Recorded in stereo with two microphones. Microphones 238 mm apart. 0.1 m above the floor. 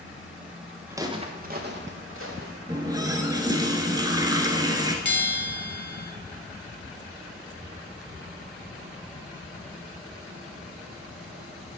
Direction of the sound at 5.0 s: 50° left (ahead or behind).